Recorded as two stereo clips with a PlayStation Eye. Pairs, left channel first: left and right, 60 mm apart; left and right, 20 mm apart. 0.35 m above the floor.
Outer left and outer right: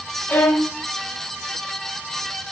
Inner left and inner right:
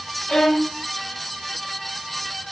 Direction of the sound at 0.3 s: 40° left (ahead or behind).